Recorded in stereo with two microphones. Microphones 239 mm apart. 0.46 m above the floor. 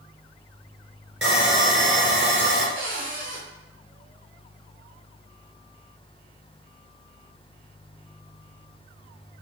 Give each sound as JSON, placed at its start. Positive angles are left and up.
{"t": 1.2, "sound": "sawing", "side_deg": -55, "distance_m": 1.4}
{"t": 2.8, "sound": "a cupboard door", "side_deg": -55, "distance_m": 1.7}